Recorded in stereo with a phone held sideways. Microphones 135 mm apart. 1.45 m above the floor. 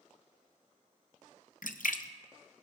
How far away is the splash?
About 0.7 m.